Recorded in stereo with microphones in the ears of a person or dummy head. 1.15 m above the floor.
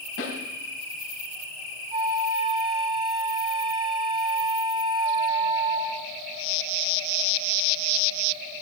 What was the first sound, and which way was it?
A snare drum, 65° left (ahead or behind).